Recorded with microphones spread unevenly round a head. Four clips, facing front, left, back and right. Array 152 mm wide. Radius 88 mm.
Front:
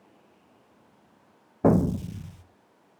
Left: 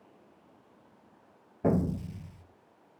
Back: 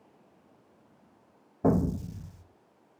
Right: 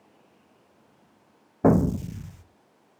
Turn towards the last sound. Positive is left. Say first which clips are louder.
# right 8 dB, front 4 dB
turn(degrees=-40)